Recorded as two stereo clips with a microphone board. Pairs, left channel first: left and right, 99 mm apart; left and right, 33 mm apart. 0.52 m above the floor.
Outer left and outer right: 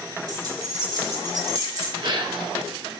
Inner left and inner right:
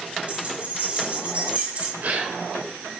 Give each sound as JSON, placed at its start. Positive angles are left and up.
{"t": 0.3, "sound": "keys jangling", "side_deg": -45, "distance_m": 3.0}
{"t": 2.0, "sound": "a gasp", "side_deg": -55, "distance_m": 1.1}